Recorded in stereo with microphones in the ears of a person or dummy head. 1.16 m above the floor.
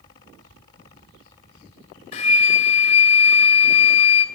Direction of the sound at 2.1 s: 35° left (ahead or behind).